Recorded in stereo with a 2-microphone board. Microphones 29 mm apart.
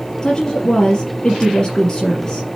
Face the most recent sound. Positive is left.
turn(degrees=25)  # may be behind; listen again after turning